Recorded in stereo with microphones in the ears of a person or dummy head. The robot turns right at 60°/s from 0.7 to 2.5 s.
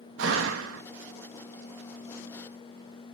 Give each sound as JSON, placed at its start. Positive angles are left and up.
{"t": 0.2, "sound": "a door slam", "side_deg": -65, "distance_m": 1.4}